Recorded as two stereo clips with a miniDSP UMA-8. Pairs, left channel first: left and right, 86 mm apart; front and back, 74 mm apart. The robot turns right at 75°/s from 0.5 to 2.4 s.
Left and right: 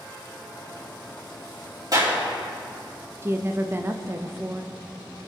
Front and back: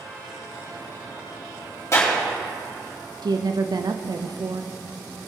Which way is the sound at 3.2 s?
150° right.